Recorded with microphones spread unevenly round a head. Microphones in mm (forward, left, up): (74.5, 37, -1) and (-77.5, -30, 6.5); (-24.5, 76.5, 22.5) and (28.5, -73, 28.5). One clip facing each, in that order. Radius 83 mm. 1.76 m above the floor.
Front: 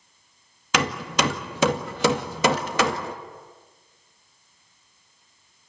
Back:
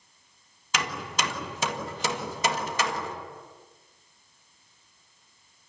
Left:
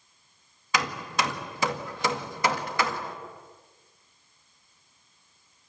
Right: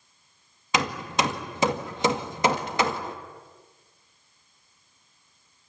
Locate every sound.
0.7 s hammering: 5° right, 2.0 m